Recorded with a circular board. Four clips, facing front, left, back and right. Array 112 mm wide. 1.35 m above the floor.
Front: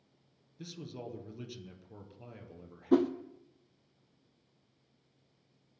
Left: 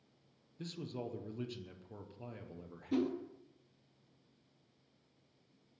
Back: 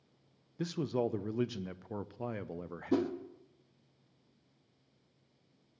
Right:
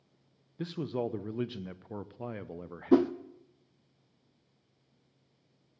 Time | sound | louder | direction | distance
0.6 | a man speaking | right 10 dB, back 11 dB | 135° right | 0.7 m
2.9 | a whoosh | right 11 dB, front 5 dB | 70° right | 0.7 m